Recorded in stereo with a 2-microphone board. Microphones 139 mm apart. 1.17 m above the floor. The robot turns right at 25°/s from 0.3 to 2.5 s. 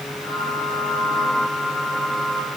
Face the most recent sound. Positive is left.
No sound to turn to.